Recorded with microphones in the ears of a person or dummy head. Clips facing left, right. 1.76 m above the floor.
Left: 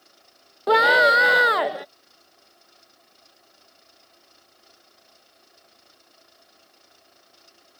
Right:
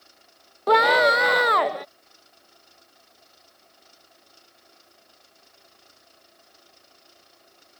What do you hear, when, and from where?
0.7 s a scream: 5° left (ahead or behind)